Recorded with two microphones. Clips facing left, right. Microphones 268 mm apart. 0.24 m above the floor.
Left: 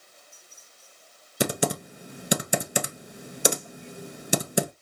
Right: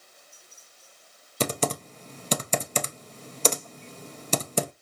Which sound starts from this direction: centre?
Typing on a keyboard, at 1.4 s.